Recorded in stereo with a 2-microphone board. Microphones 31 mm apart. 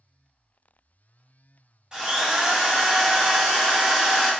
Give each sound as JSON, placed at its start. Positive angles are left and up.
{"t": 1.9, "sound": "a drill", "side_deg": -25, "distance_m": 0.9}